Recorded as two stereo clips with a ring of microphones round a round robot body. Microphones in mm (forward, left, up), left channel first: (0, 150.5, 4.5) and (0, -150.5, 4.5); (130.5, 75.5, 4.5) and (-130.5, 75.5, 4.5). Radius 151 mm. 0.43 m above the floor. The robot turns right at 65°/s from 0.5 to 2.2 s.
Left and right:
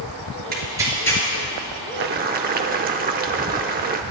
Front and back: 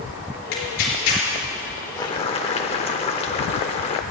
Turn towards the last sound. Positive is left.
turn(degrees=-55)